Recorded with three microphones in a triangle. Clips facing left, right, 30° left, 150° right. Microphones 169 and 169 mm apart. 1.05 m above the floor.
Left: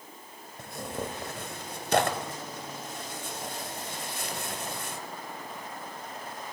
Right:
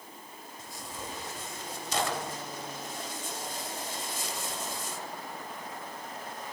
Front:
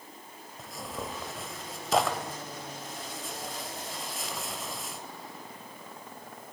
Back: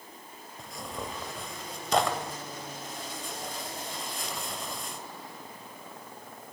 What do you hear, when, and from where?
0.6 s tearing paper: 120° left, 2 m